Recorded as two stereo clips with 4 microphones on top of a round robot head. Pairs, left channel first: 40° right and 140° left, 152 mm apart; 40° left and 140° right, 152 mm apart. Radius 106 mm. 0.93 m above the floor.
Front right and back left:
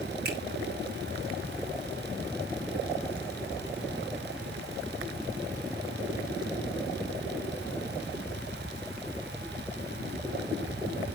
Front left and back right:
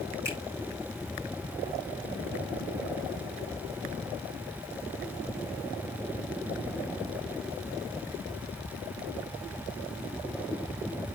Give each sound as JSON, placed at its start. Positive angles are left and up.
{"t": 0.2, "sound": "a finger snap", "azimuth_deg": 145, "distance_m": 5.0}